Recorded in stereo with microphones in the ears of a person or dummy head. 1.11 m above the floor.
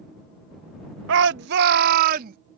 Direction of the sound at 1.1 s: 65° right (ahead or behind).